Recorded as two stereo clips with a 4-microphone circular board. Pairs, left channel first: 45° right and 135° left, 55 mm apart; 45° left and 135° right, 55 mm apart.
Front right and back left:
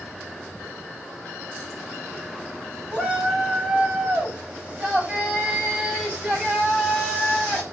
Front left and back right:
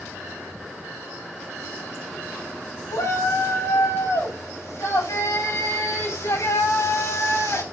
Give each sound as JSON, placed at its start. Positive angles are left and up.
{"t": 2.9, "sound": "a shout", "azimuth_deg": 65, "distance_m": 9.0}